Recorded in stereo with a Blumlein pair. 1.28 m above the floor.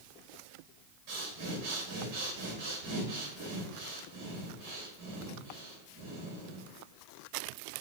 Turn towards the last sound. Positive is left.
turn(degrees=-50)